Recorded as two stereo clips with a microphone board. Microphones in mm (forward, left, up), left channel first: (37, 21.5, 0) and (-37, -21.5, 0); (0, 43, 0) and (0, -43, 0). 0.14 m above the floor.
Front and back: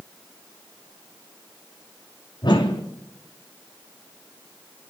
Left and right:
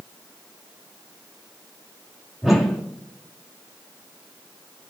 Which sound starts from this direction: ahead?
A whoosh, at 2.4 s.